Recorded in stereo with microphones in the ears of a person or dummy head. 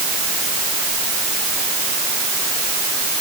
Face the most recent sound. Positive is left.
No sound to turn to.